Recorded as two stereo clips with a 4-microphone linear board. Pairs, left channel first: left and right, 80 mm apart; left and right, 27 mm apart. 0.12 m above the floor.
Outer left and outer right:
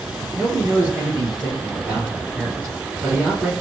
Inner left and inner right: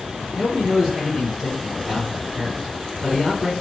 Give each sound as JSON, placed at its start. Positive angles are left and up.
{"t": 0.3, "sound": "a man speaking", "side_deg": 0, "distance_m": 1.7}